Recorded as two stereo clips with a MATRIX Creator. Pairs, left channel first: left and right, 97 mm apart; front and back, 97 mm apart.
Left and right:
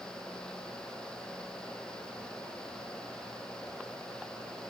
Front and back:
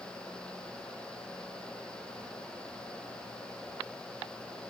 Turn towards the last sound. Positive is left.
No sound to turn to.